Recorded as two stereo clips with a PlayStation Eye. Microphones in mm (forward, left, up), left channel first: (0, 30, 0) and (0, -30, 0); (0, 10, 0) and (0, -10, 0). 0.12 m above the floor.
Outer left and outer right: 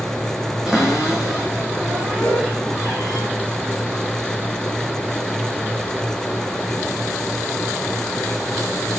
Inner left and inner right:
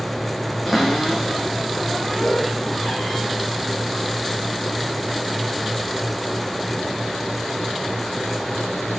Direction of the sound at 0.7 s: 10° right (ahead or behind).